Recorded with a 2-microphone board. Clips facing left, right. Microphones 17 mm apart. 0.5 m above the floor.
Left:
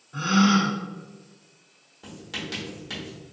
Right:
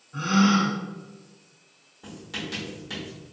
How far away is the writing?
About 1.3 m.